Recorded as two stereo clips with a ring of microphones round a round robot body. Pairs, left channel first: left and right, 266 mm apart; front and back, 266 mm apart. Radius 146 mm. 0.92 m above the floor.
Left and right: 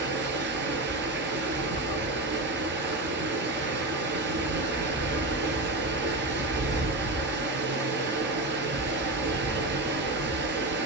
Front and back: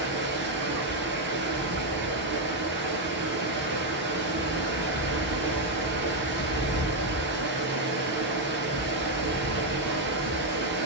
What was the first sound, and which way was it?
Running water, 135° right.